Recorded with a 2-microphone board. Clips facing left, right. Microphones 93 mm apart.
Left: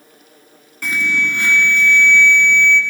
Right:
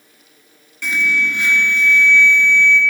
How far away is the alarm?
About 1.6 m.